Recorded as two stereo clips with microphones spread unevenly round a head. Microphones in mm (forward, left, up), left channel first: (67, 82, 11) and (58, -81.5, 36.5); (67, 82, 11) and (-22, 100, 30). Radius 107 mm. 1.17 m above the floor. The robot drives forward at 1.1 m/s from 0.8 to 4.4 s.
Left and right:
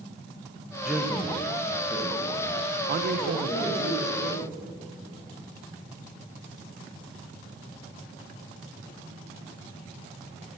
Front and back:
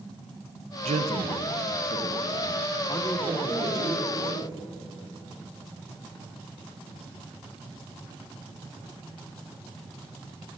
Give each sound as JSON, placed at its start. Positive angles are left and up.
{"t": 0.8, "sound": "a man speaking", "azimuth_deg": 175, "distance_m": 0.6}
{"t": 2.9, "sound": "a man speaking", "azimuth_deg": -60, "distance_m": 0.8}